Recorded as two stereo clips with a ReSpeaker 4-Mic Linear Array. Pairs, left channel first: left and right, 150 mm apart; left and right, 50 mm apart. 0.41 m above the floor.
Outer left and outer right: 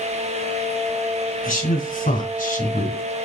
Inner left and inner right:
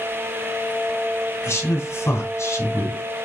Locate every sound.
1.4 s a man speaking: 55° left (ahead or behind), 4 m; by 3.0 s 60° left (ahead or behind), 2.5 m